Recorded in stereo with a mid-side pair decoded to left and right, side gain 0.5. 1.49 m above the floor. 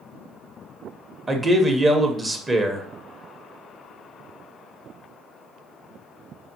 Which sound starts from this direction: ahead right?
A man speaking, at 1.3 s.